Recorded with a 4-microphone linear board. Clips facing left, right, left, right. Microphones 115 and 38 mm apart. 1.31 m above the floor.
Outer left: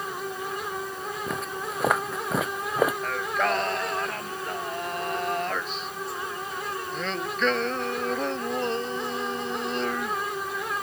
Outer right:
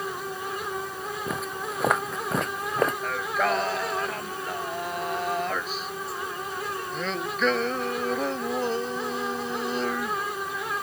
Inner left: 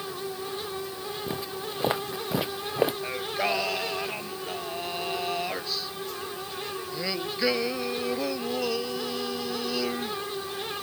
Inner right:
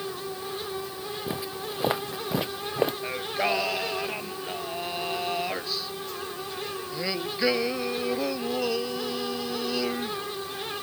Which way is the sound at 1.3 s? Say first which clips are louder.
Outer right 1 dB, inner right 1 dB; 5° right (ahead or behind).